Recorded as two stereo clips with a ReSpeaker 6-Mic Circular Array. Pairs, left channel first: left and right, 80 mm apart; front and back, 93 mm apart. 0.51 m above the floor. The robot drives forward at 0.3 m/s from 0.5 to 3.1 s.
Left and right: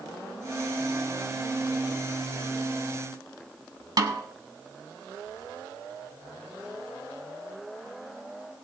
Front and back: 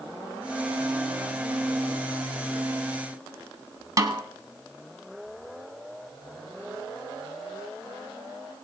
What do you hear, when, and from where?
4.0 s a snare drum: 125° right, 1.2 m